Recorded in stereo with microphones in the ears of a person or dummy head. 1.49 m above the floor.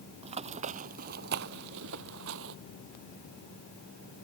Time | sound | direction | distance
0.2 | running footsteps | 30° right (ahead or behind) | ?